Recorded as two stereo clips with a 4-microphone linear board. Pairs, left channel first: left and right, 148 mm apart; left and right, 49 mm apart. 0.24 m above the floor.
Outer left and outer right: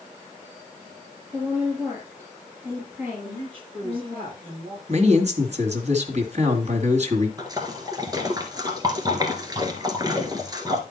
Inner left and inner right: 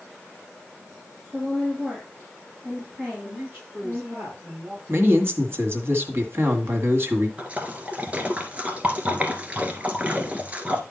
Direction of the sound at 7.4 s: 25° right (ahead or behind).